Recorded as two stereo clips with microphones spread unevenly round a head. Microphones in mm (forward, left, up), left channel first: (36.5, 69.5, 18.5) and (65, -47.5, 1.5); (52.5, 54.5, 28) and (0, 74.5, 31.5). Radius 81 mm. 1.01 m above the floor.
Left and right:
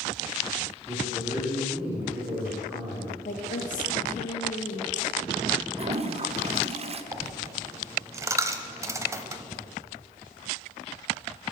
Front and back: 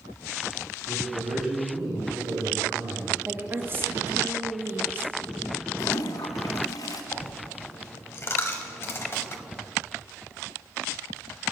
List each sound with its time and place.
0.9 s a man speaking: 155° right, 2.5 m
3.2 s a woman speaking: 110° left, 1.5 m
5.8 s a toilet flushing: 40° right, 0.7 m
7.1 s a dropped coin: 15° right, 0.9 m